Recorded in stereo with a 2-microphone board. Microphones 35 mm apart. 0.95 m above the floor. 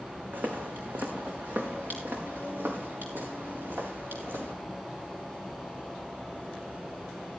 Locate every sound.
0.3 s footsteps: 60° right (ahead or behind), 2.5 m; by 4.5 s 85° right, 7.5 m